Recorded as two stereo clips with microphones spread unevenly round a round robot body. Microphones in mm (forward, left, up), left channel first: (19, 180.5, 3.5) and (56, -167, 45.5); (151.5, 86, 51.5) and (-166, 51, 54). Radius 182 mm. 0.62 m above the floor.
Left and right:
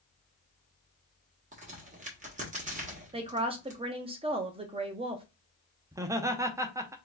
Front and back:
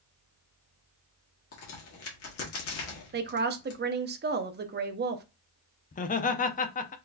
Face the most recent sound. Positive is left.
turn(degrees=0)